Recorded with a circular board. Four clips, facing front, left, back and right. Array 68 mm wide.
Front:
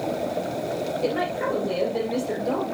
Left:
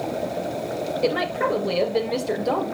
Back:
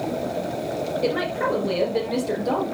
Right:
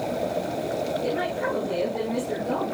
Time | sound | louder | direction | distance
1.0 | a woman speaking | left 4 dB, back 2 dB | 115° left | 2 m